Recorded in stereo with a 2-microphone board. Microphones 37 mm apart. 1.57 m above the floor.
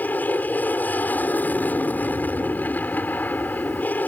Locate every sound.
0.0 s an aircraft: 50° left (ahead or behind)